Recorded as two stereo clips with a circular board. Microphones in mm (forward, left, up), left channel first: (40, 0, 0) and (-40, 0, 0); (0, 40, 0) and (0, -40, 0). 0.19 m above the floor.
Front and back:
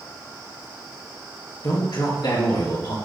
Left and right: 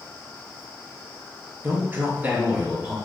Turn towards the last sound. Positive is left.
turn(degrees=-10)